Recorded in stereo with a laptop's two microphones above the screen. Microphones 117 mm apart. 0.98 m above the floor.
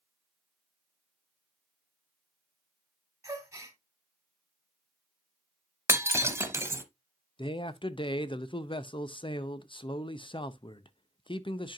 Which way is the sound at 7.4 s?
45° left (ahead or behind).